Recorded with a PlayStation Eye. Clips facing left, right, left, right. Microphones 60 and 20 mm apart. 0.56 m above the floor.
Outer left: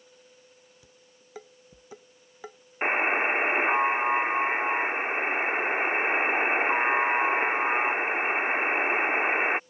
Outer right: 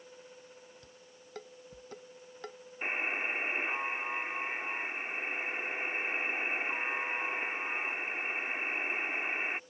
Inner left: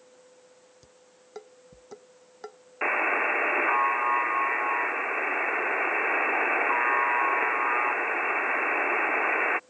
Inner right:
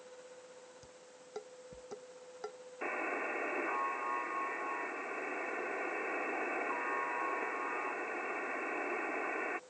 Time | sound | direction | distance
0.8 | dishes clattering | 10° left (ahead or behind) | ?
2.8 | a buzzer | 60° left (ahead or behind) | ?